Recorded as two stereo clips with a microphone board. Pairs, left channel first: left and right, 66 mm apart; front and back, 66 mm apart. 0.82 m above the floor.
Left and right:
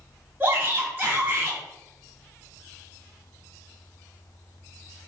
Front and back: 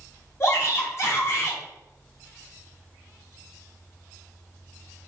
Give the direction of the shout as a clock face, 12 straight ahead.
1 o'clock.